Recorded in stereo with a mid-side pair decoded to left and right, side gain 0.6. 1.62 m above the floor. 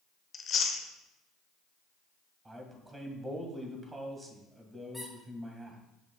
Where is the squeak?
Straight ahead, 2.5 m.